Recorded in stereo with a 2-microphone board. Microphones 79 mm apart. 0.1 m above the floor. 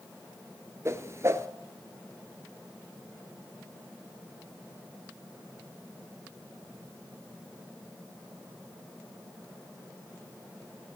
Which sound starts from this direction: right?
A whoosh, at 0.8 s.